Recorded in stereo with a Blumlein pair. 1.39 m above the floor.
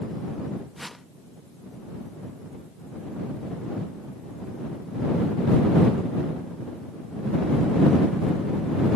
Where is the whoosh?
5° left.